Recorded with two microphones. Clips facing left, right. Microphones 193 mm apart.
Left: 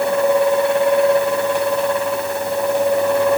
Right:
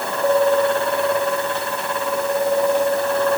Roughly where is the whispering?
I don't hear whispering.